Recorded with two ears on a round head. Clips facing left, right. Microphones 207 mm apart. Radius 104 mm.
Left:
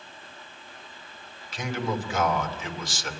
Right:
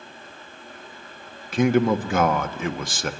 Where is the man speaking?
50° right (ahead or behind), 1.4 m.